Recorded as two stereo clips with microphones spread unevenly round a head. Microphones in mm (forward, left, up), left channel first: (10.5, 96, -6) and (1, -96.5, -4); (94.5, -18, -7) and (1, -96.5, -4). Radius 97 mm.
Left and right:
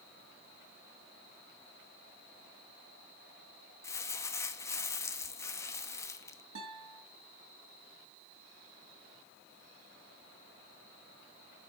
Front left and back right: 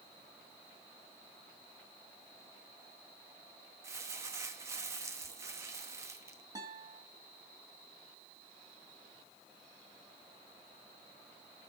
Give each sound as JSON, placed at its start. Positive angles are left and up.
{"t": 3.8, "sound": "crumpling", "azimuth_deg": 160, "distance_m": 0.9}
{"t": 6.5, "sound": "a guitar", "azimuth_deg": -80, "distance_m": 4.0}